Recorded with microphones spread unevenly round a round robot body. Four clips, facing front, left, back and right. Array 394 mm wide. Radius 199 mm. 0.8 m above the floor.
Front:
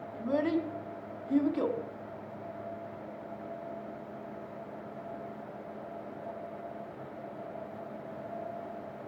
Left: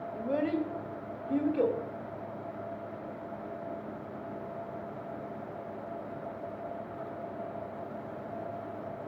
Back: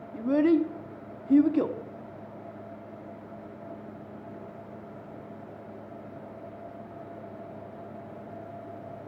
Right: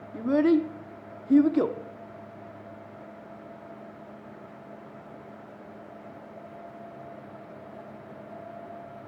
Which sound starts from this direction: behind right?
A child speaking, at 0.1 s.